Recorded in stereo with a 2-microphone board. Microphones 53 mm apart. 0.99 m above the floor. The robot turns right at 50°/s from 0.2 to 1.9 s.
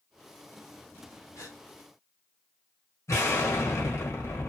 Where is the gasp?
80° left, 1.6 m; by 1.6 s 70° left (ahead or behind), 1.6 m.